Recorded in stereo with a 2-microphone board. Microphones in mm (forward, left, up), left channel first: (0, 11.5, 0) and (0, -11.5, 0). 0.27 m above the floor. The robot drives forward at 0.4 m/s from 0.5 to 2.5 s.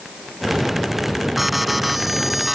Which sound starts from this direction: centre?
An alarm, at 1.4 s.